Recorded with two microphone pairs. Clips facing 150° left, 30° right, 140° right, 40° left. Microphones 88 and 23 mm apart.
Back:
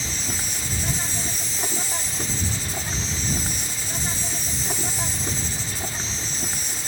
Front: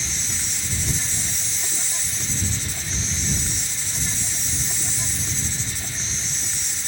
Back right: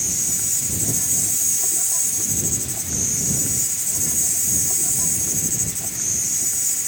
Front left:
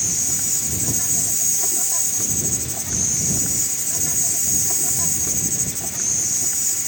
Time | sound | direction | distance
0.0 | an insect | 115° left | ?